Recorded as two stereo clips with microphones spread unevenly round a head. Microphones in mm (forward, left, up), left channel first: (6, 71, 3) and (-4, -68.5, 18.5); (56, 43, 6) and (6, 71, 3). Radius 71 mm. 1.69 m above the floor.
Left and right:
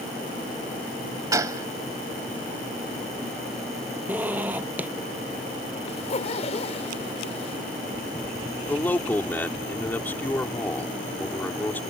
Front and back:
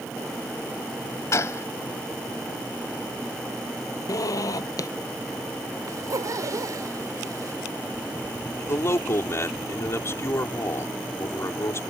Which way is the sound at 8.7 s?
5° left.